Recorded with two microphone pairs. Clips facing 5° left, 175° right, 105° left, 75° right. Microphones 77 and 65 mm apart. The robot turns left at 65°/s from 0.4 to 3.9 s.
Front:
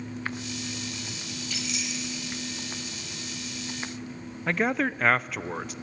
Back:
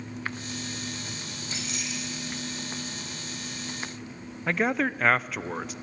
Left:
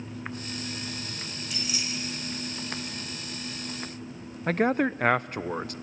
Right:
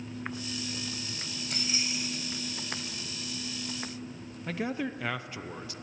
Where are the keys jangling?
115° right, 4.5 m; by 2.4 s 175° right, 4.5 m.